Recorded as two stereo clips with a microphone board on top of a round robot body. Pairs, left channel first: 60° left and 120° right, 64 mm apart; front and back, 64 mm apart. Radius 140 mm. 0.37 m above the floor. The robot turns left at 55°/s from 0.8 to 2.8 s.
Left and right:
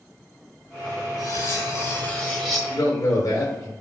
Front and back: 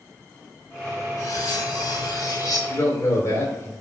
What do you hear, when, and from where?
1.2 s cutlery clinking: 40° left, 2.5 m; by 2.6 s 35° right, 2.5 m
2.7 s a man speaking: 45° left, 3 m; by 3.7 s 40° left, 3 m